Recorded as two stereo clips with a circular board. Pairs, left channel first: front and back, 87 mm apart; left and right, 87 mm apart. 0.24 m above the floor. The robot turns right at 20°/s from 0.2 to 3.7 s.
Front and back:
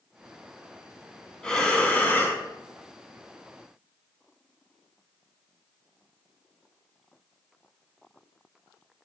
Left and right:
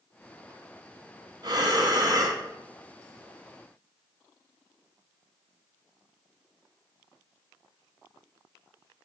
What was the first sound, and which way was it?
Breathing, 80° right.